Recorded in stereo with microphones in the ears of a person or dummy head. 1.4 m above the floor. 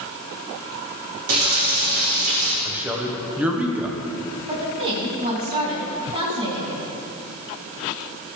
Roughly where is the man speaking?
Centre.